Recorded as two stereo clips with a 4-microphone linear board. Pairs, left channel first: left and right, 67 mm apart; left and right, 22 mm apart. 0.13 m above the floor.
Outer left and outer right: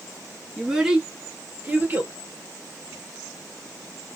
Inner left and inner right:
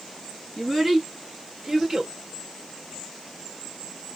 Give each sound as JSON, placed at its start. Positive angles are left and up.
{"t": 0.6, "sound": "a child speaking", "side_deg": 0, "distance_m": 1.1}